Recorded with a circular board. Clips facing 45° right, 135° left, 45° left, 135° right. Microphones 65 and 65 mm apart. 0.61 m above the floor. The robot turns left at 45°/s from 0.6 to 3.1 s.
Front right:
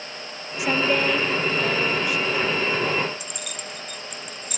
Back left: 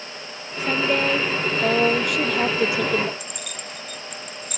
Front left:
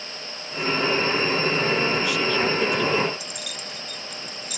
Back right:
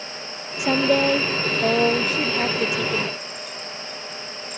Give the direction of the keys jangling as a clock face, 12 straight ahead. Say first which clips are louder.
Even, back right 2 dB; 11 o'clock.